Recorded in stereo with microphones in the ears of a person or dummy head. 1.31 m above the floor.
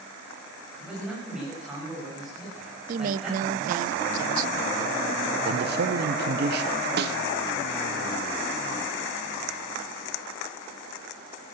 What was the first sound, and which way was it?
A man speaking, 5° right (ahead or behind).